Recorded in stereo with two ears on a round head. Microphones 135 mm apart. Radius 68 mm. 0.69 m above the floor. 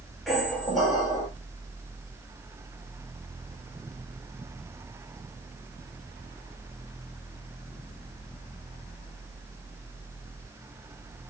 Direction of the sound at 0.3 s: Centre (ahead or behind).